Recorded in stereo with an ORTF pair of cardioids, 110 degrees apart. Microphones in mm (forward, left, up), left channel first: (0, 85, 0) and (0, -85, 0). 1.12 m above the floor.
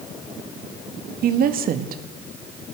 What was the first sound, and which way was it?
A woman speaking, 65° right.